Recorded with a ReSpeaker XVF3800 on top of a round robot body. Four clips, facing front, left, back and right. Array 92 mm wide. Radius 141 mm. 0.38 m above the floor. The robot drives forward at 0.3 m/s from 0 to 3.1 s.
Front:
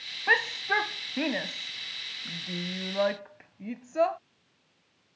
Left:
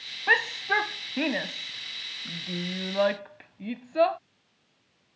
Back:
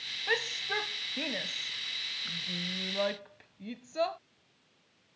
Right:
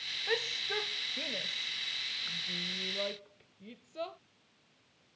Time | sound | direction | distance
0.3 | a shout | 50° left | ?